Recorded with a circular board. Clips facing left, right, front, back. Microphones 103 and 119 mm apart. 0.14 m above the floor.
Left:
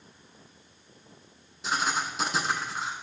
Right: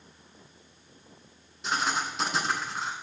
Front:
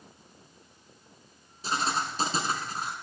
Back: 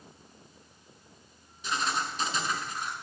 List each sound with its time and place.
1.6 s writing: 5° left, 1.2 m